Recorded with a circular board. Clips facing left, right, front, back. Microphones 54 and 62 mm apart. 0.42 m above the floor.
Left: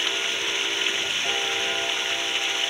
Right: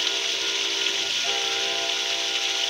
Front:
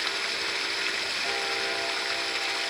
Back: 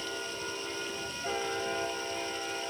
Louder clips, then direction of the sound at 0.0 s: Left 1 dB, front 6 dB; 20° left.